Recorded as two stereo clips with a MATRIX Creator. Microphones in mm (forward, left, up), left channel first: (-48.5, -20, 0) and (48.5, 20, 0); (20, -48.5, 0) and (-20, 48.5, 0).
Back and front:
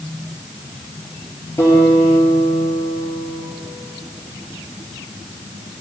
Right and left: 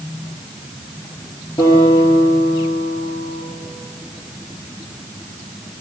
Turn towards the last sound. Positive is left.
turn(degrees=-95)